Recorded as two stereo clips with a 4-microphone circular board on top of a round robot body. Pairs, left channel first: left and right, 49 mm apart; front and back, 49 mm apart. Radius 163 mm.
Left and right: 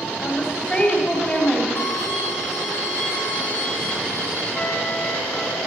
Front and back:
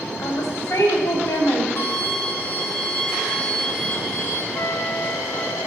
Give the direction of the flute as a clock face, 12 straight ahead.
11 o'clock.